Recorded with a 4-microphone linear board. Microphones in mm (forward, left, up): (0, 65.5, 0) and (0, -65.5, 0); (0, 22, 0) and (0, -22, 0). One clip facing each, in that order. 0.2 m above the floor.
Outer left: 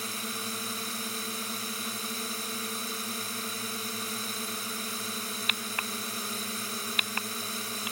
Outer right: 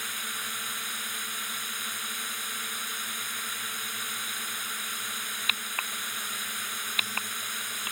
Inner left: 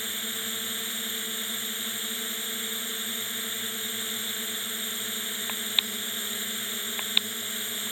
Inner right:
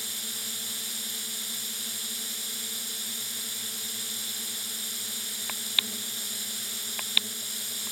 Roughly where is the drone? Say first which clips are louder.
Outer left 4 dB, inner left 4 dB; left.